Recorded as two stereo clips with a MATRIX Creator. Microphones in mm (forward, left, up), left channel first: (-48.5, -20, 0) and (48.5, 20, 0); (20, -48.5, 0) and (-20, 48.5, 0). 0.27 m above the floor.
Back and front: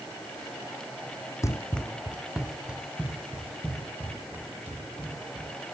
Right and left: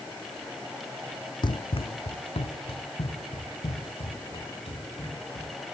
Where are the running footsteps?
105° right, 0.6 m; by 5.5 s 50° right, 5.5 m.